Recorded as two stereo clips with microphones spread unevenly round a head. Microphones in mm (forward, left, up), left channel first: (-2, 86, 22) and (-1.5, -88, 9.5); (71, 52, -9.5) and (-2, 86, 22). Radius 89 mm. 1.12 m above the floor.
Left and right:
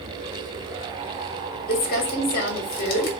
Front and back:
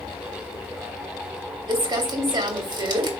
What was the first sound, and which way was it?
Crumpling, 130° left.